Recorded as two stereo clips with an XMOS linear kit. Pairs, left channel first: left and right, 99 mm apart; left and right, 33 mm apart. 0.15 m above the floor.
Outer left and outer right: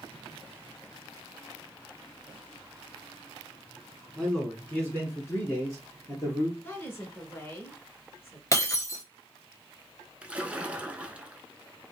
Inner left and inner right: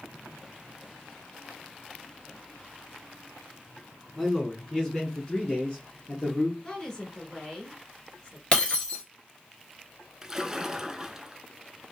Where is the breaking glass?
30° left (ahead or behind), 1.5 m.